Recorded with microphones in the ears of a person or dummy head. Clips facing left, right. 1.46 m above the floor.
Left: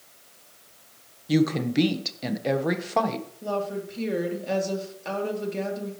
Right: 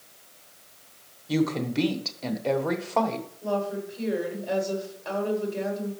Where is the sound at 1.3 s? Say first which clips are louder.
Left 3 dB; 15° left (ahead or behind), 1.2 m.